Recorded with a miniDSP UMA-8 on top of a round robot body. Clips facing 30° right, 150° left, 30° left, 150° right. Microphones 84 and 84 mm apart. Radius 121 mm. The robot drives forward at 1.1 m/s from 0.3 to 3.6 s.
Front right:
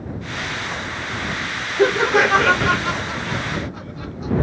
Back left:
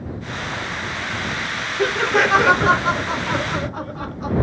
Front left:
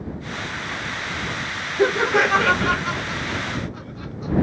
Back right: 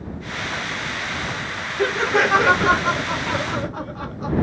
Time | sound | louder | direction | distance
1.8 | laughter | front right 3 dB, front left 1 dB | 5° right | ?